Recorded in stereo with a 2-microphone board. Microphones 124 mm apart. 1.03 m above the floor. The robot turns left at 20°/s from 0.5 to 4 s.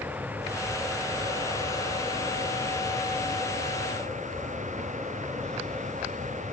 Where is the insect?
15° right; by 6.5 s 85° right.